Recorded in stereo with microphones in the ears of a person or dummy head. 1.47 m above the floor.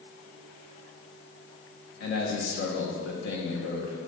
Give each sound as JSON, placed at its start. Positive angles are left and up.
{"t": 2.0, "sound": "a man speaking", "side_deg": 65, "distance_m": 1.6}